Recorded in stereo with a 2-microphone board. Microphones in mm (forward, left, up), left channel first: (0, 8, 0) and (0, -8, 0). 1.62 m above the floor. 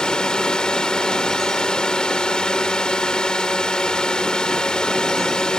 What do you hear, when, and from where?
0.0 s a drone: 70° left (ahead or behind)